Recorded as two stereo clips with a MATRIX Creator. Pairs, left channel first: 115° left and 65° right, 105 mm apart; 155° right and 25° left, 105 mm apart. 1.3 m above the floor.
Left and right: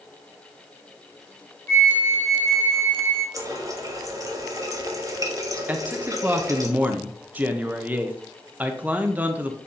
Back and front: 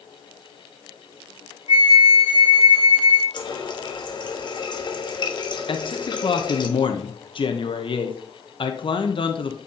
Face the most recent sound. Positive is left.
turn(degrees=-140)